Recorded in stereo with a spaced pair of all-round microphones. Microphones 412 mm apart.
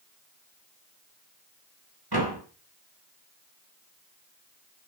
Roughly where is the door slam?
Right.